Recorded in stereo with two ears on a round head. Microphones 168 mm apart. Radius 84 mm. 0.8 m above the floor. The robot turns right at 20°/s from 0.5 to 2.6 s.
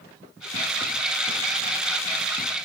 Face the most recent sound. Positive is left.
No sound to turn to.